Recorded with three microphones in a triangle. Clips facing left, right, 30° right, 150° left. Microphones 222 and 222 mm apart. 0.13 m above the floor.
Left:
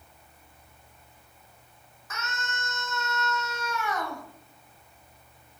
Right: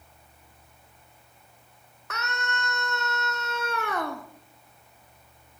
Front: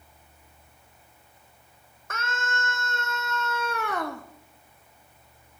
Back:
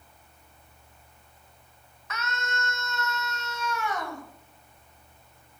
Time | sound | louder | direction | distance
2.1 | a scream | right 4 dB, front 2 dB | 70° right | 5.5 m